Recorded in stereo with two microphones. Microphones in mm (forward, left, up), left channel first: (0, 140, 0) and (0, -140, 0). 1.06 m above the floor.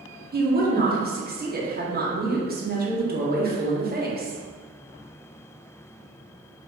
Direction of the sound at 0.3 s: 35° right (ahead or behind).